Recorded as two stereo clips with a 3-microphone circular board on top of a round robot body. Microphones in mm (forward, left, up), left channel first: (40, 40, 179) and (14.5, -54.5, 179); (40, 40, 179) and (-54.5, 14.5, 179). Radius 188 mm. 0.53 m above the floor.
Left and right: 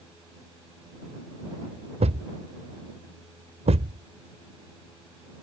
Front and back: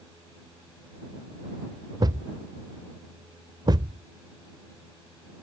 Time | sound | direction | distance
2.0 | a thud | 115° right | ?